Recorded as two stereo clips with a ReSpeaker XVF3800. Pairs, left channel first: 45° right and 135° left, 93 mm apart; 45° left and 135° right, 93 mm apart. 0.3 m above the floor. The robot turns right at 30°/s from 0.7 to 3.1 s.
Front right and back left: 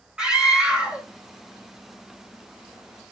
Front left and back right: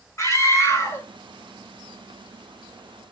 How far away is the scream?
About 1.7 m.